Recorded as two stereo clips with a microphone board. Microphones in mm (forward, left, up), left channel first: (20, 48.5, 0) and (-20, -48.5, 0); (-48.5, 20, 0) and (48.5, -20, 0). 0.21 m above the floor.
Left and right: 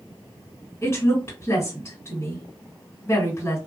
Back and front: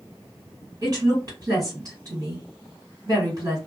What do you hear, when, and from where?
0.8 s a woman speaking: 15° left, 2.0 m